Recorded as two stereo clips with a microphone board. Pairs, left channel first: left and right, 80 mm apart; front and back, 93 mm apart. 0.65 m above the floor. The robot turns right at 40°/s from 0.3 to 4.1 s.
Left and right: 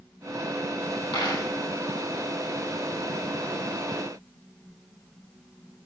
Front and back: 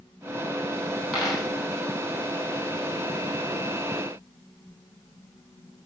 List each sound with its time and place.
1.1 s a dropped coin: 85° left, 6 m; by 1.4 s 100° left, 6 m